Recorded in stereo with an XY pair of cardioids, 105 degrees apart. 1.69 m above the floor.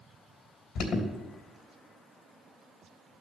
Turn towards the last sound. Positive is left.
turn(degrees=65)